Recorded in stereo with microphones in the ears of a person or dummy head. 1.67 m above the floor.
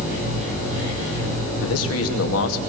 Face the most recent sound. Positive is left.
turn(degrees=80)